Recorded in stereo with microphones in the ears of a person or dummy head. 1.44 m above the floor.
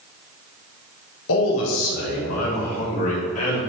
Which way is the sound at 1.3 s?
75° left (ahead or behind).